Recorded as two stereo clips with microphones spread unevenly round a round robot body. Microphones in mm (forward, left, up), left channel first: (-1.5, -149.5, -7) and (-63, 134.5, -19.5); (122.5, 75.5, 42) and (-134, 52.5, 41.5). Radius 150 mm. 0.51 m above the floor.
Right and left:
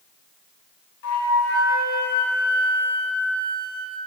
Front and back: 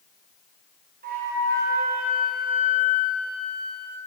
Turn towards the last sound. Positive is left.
turn(degrees=-110)